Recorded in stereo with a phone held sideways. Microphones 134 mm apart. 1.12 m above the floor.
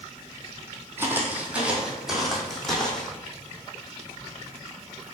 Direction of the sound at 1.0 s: 15° right (ahead or behind).